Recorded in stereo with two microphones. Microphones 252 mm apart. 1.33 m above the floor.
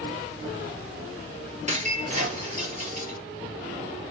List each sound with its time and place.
1.7 s breaking glass: 30° right (ahead or behind), 7.5 m